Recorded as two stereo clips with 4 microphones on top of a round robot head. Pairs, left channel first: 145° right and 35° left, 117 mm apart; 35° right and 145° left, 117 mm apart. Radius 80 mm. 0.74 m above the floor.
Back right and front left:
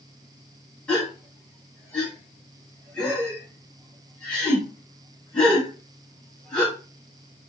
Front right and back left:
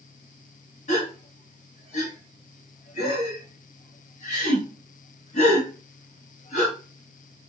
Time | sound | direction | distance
0.9 | a gasp | 65° right | 1.4 m